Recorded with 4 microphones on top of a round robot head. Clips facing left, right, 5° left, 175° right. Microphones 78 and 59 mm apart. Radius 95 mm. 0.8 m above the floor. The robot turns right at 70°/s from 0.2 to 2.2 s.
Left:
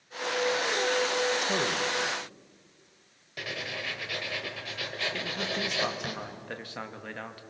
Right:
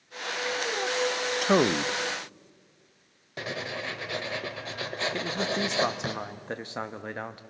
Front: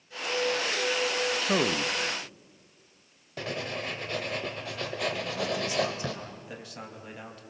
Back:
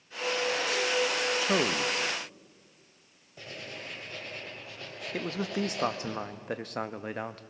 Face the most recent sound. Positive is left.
turn(degrees=-155)